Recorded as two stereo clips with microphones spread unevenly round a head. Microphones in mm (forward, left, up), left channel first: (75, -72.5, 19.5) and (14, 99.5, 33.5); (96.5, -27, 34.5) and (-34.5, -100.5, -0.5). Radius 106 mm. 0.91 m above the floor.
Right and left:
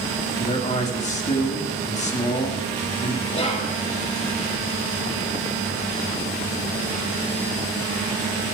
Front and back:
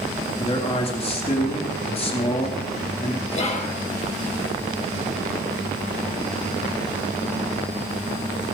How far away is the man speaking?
About 1.8 m.